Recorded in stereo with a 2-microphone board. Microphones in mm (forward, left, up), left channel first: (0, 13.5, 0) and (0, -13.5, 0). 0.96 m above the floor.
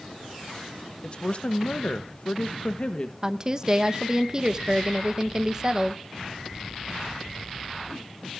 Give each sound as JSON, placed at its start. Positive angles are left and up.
{"t": 1.0, "sound": "a woman speaking", "side_deg": 35, "distance_m": 1.2}
{"t": 3.2, "sound": "a woman speaking", "side_deg": -25, "distance_m": 0.8}